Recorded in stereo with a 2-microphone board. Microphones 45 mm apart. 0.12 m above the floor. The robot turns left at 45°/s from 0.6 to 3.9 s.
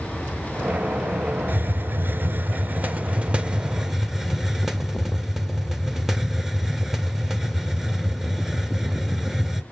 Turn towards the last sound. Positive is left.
turn(degrees=-170)